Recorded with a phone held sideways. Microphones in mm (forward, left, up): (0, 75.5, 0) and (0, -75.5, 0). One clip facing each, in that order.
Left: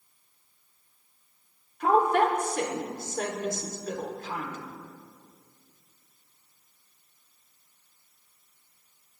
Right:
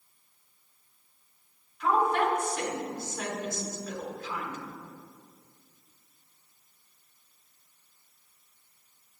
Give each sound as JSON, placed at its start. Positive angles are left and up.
{"t": 1.8, "sound": "a woman speaking", "side_deg": 50, "distance_m": 3.0}